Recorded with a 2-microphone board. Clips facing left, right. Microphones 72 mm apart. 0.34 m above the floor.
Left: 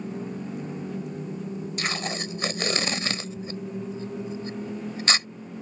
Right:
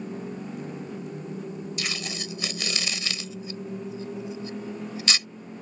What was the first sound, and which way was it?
Tape being pulled, 40° left (ahead or behind).